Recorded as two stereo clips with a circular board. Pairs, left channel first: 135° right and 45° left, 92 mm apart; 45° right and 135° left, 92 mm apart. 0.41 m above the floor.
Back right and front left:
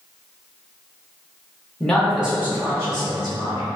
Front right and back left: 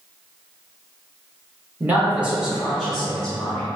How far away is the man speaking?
About 0.8 m.